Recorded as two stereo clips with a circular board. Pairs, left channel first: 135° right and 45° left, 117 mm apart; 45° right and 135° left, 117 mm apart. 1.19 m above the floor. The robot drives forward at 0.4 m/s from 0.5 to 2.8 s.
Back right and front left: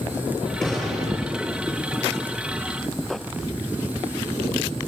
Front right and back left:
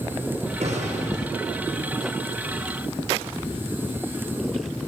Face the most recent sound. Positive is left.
turn(degrees=140)